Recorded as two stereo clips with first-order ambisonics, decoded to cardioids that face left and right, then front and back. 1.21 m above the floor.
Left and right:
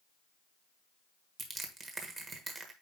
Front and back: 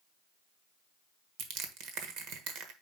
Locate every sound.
1.4 s crushing: 155° right, 1.3 m